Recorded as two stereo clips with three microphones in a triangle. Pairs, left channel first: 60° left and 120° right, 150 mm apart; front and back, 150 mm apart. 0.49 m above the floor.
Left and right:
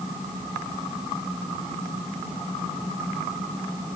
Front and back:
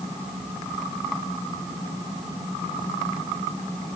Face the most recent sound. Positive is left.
No sound to turn to.